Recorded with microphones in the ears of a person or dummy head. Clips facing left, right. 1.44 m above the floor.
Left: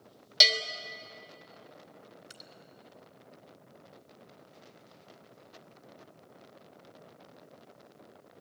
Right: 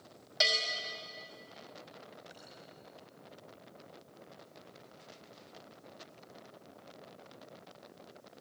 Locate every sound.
0.4 s a bell: 45° left (ahead or behind), 1.8 m
2.3 s dripping: 75° left (ahead or behind), 3.5 m